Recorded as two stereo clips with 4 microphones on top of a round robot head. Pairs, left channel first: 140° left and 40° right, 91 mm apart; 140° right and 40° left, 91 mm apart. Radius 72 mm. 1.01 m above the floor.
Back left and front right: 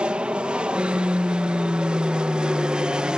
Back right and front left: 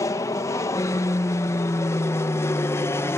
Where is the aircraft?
110° right.